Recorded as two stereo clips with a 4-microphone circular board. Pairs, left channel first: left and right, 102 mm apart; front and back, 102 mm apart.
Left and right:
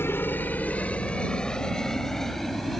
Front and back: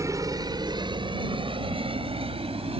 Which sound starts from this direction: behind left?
A helicopter, at 0.0 s.